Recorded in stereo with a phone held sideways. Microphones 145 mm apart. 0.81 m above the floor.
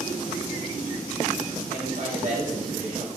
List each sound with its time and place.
1.7 s a man speaking: 60° right (ahead or behind), 4 m